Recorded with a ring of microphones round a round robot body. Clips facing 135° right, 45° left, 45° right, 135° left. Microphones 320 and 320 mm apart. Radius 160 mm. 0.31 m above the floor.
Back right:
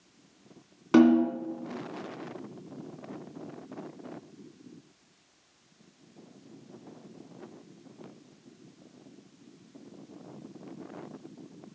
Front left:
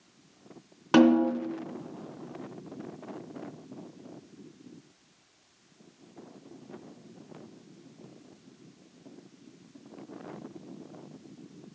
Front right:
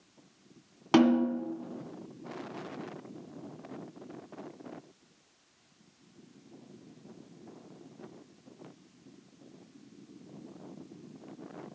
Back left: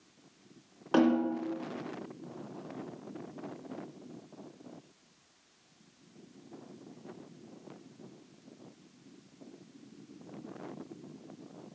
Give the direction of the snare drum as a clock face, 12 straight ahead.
1 o'clock.